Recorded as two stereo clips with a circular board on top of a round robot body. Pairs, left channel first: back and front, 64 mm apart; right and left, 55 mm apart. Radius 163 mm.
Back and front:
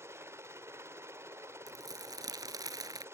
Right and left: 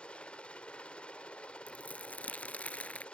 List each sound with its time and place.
0.0 s a helicopter: 25° right
1.7 s crumpling: 25° right